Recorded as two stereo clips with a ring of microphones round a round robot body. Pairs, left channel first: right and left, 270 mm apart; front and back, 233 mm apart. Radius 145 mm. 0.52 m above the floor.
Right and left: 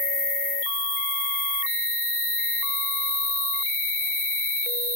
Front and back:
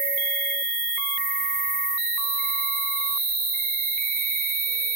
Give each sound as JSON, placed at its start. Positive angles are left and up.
{"t": 0.0, "sound": "an insect", "azimuth_deg": -150, "distance_m": 4.5}